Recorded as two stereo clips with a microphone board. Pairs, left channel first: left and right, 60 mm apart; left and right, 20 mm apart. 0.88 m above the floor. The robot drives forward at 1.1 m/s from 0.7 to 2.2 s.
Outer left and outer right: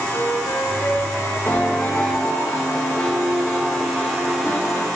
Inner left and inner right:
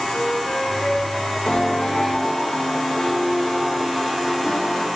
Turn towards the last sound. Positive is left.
turn(degrees=15)  # may be behind; listen again after turning